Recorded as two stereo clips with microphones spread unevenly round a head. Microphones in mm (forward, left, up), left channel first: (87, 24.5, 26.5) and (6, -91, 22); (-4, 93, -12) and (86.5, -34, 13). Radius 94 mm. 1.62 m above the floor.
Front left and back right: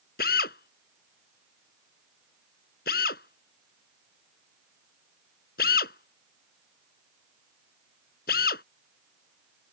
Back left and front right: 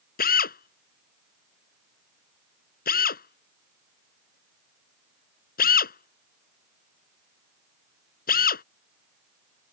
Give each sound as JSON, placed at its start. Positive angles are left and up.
{"t": 0.2, "sound": "a drill", "azimuth_deg": 100}